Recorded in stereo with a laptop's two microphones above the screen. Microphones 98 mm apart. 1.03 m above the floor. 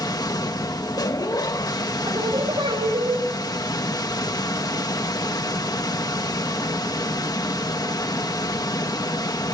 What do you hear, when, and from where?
0.0 s a machine running: 40° left (ahead or behind), 1.2 m
2.1 s singing: 50° right (ahead or behind), 5.5 m